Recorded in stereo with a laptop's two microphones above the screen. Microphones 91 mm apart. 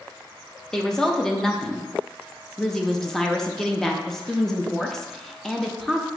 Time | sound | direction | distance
0.7 | a woman speaking | 5° left (ahead or behind) | 0.6 m